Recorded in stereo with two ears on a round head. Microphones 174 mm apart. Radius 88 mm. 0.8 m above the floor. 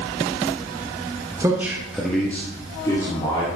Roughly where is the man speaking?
Centre.